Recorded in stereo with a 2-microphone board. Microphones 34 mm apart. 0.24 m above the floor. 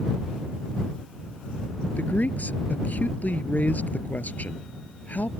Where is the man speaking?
55° left (ahead or behind).